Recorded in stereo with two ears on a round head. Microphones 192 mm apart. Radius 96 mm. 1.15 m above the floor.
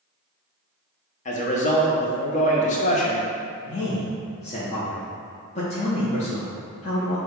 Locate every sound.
1.2 s a man speaking: 35° left (ahead or behind), 0.8 m
3.7 s a man speaking: 30° left (ahead or behind), 0.9 m